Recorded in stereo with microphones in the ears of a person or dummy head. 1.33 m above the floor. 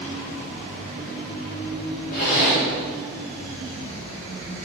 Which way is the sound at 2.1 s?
55° left (ahead or behind).